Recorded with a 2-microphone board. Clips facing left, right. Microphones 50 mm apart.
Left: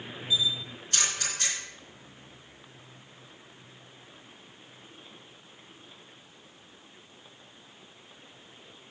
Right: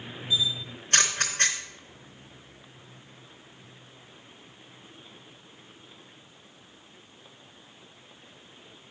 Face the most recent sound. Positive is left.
turn(degrees=-50)  # may be behind; listen again after turning